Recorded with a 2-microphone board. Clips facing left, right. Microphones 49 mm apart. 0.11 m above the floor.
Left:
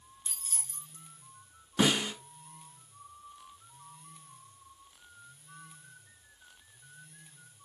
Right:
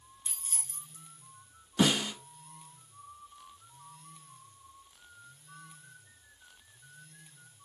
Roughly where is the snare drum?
Left.